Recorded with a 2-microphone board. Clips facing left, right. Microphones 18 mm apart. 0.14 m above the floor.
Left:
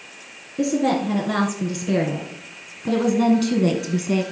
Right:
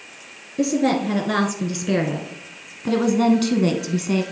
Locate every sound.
0.6 s a woman speaking: 15° right (ahead or behind), 2 m